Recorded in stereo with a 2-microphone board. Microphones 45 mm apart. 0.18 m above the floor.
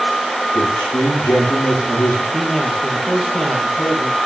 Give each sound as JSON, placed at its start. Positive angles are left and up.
{"t": 0.6, "sound": "a man speaking", "side_deg": 80, "distance_m": 8.5}
{"t": 2.3, "sound": "a man speaking", "side_deg": 10, "distance_m": 5.5}